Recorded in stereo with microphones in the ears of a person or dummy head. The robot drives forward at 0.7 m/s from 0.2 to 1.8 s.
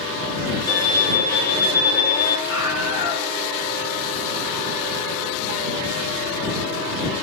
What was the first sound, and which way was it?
A violin, 25° left (ahead or behind).